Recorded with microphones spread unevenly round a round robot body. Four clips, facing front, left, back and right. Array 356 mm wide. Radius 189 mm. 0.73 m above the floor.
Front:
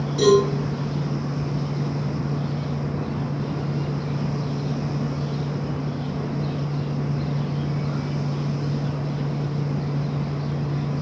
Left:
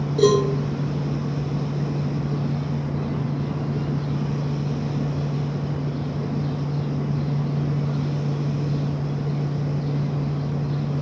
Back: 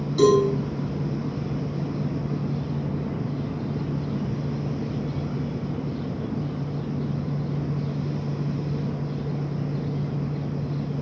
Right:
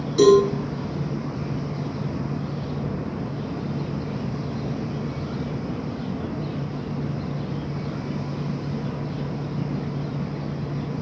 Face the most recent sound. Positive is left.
turn(degrees=-130)